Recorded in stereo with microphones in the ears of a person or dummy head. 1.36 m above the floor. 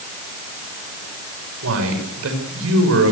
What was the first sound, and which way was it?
A man speaking, 75° right (ahead or behind).